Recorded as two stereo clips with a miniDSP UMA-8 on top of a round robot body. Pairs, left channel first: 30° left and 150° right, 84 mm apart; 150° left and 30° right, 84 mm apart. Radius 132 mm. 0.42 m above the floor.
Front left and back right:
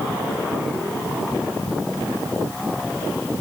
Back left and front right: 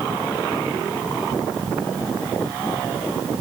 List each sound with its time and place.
Only background noise.